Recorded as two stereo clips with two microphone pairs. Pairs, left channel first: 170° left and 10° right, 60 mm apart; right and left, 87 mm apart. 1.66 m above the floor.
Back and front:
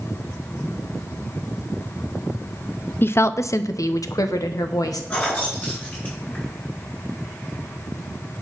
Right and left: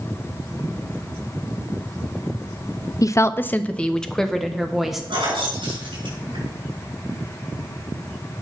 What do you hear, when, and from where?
3.0 s a woman speaking: 140° right, 0.5 m; by 5.0 s 175° left, 1.5 m
5.1 s keys jangling: 105° left, 6 m